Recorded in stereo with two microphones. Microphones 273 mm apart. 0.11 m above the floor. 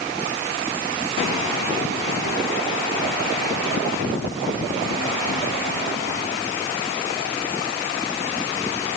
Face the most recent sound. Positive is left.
No sound to turn to.